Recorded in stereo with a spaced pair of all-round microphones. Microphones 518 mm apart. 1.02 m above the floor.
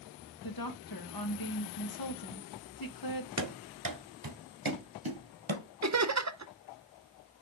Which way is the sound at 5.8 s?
35° right (ahead or behind).